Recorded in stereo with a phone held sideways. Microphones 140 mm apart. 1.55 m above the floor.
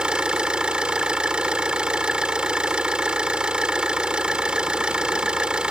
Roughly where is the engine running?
Centre.